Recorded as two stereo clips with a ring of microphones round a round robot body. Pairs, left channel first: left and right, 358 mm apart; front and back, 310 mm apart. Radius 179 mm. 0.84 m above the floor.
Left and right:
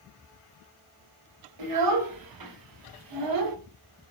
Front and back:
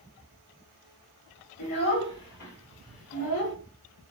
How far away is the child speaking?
About 3.5 m.